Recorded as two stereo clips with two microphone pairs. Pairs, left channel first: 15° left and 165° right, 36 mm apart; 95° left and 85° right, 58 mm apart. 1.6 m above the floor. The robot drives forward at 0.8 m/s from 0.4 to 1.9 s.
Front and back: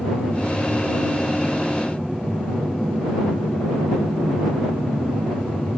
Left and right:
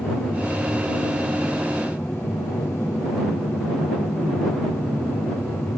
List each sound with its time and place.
0.0 s an aircraft: 85° left; by 5.8 s 95° left